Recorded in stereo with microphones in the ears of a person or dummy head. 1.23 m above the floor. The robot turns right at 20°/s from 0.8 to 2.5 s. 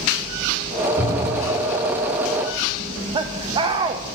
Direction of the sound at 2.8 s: 35° right (ahead or behind).